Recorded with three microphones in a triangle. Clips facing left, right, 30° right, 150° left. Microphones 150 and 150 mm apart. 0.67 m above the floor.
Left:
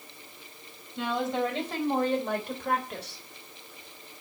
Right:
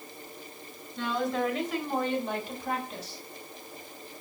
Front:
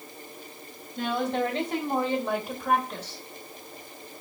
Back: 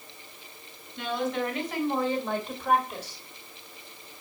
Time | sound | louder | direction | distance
1.0 | a woman speaking | left 1 dB, front 2 dB | 20° left | 4 m